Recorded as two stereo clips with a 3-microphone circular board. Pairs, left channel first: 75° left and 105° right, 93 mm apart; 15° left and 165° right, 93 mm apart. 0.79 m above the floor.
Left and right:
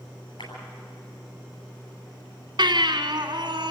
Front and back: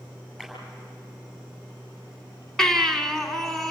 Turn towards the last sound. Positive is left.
turn(degrees=-70)